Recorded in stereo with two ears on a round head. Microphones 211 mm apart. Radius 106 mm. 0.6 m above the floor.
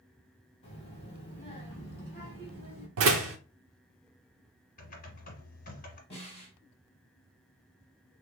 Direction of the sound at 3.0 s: 65° right (ahead or behind).